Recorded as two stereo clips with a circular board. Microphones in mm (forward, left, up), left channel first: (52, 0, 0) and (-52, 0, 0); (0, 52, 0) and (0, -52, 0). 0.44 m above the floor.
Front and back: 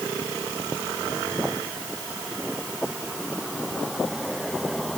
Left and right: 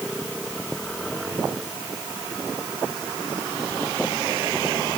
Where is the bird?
No bird in this recording.